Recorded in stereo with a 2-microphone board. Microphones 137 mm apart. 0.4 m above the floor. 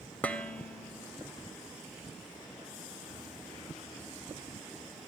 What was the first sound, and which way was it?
Dishes clattering, 10° left (ahead or behind).